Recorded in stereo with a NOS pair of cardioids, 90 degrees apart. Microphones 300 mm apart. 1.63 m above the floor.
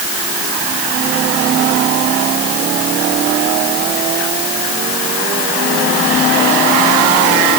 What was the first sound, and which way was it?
Only background noise.